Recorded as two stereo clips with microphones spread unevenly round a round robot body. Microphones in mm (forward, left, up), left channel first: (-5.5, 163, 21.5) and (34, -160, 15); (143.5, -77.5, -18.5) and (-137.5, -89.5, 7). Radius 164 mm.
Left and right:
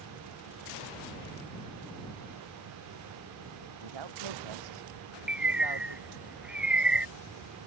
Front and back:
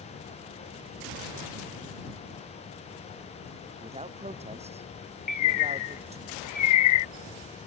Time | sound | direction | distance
3.8 | a man speaking | 110° right | ?
5.3 | a bird | 5° left | ?